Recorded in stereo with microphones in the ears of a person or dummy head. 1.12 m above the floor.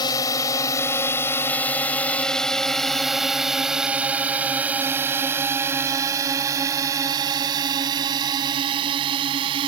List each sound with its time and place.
0.0 s a drone: 20° left (ahead or behind); by 9.7 s 30° right (ahead or behind)